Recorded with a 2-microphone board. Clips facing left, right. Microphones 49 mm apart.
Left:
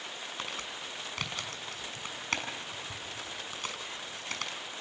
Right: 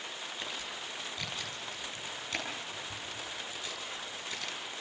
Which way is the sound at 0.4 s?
65° left (ahead or behind).